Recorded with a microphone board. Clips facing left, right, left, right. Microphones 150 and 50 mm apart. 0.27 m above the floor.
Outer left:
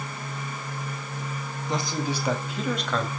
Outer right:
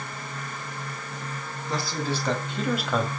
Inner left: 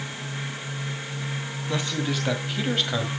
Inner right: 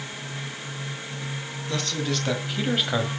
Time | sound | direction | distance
1.7 | a man speaking | 20° left (ahead or behind) | 2.5 m